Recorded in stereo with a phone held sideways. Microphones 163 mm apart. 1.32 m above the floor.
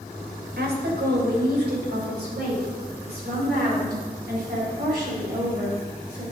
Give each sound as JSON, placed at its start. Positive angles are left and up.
{"t": 0.6, "sound": "a woman speaking", "side_deg": -85, "distance_m": 1.3}